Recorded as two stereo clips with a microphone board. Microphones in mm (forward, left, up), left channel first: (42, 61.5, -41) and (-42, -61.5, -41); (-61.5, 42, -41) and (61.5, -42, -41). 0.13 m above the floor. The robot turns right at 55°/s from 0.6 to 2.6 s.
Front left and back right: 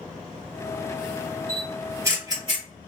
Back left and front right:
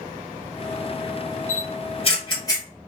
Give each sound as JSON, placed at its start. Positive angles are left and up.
{"t": 1.5, "sound": "a camera shutter", "azimuth_deg": 145, "distance_m": 1.8}